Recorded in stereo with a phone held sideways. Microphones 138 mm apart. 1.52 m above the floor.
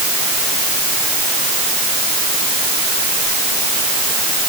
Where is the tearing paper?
No tearing paper in this recording.